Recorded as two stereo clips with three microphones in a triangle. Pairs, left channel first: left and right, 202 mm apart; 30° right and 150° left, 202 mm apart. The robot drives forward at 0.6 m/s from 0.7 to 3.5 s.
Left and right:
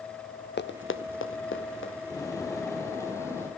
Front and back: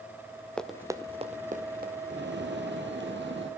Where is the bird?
160° left, 2 m; by 3.5 s 165° left, 3 m.